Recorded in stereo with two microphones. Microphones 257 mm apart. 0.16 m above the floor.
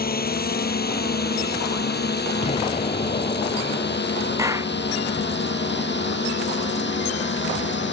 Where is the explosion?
25° left (ahead or behind).